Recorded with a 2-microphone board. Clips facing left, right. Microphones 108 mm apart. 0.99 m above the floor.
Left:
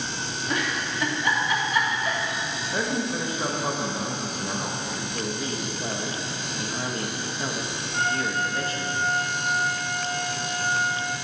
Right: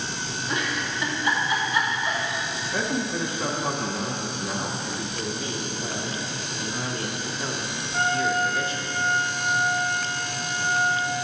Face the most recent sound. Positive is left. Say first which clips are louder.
# right 3 dB
turn(degrees=60)  # may be behind; listen again after turning